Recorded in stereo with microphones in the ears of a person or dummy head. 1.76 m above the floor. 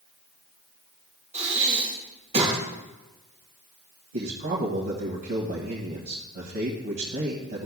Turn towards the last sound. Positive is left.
turn(degrees=-50)  # may be behind; listen again after turning